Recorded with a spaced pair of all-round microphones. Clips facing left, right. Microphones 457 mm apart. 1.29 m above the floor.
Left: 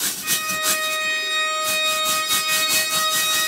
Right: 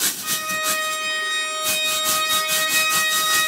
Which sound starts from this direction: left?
A violin, at 0.2 s.